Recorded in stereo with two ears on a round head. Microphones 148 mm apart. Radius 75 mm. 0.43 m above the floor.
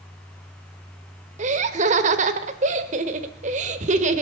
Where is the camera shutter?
No camera shutter in this recording.